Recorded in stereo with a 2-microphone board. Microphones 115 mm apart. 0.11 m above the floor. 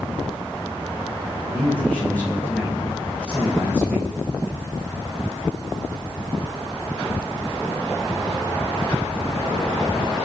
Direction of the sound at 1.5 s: 15° left (ahead or behind).